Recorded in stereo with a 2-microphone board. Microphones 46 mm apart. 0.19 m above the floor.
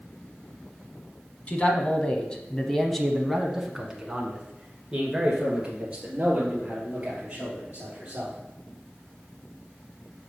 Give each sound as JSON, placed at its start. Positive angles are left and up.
{"t": 1.5, "sound": "a man speaking", "side_deg": 35, "distance_m": 1.3}